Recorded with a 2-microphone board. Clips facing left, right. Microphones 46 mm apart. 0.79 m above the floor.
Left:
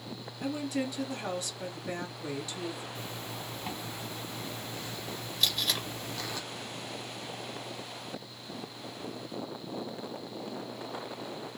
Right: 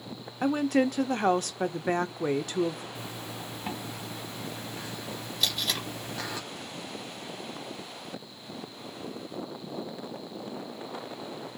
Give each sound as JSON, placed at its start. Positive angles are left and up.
{"t": 0.4, "sound": "a woman speaking", "side_deg": -50, "distance_m": 0.7}
{"t": 3.0, "sound": "a zipper", "side_deg": -15, "distance_m": 1.8}
{"t": 5.4, "sound": "tape being pulled", "side_deg": -5, "distance_m": 1.5}